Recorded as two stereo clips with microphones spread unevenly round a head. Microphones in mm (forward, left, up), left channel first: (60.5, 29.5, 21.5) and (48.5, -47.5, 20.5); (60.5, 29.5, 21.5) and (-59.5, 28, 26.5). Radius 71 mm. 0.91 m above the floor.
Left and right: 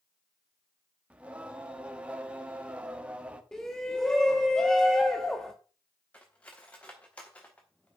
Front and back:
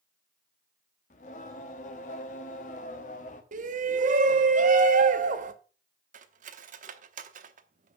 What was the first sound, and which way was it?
Singing, 25° right.